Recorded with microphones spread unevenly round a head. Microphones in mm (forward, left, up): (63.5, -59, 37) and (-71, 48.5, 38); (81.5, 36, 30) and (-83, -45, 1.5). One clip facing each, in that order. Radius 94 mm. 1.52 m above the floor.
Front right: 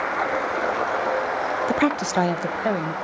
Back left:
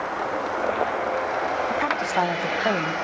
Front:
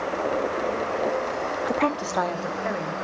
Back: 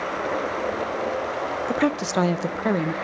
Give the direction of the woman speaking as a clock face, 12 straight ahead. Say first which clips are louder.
Front right 4 dB, back 4 dB; 2 o'clock.